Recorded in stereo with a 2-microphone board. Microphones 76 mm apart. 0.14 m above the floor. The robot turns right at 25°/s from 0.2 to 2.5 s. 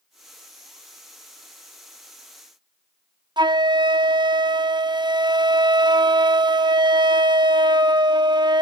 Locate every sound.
3.4 s a flute: 80° right, 0.5 m